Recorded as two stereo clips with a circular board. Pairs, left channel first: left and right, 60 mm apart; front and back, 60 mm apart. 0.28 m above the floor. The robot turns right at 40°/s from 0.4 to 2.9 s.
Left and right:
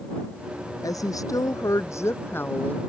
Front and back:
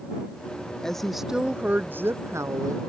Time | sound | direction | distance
0.8 | a woman speaking | 80° left | ?